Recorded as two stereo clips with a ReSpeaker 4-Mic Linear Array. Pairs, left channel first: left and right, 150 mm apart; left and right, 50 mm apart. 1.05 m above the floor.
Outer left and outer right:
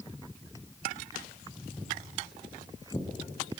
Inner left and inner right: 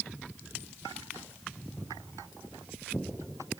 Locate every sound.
1.8 s footsteps: 25° left (ahead or behind), 4 m; by 3.6 s 30° left (ahead or behind), 3.5 m